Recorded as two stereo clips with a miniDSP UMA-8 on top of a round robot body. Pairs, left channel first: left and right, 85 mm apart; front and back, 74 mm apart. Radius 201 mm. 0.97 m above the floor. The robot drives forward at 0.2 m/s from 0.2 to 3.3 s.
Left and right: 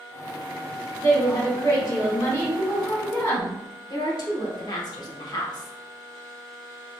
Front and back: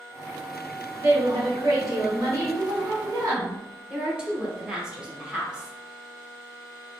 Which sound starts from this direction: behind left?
A woman speaking, at 1.0 s.